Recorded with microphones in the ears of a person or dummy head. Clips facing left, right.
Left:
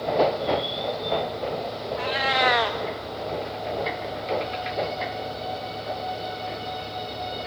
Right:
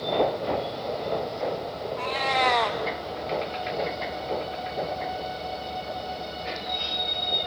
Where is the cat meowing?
10° left (ahead or behind), 1.0 m.